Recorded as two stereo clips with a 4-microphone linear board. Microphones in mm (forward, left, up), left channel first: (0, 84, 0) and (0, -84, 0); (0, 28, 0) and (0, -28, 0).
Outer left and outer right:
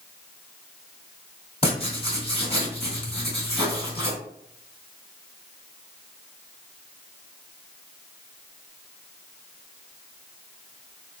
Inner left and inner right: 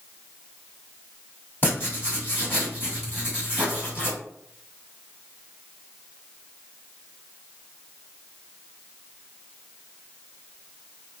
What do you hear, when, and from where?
1.6 s writing: 40° left (ahead or behind), 1.7 m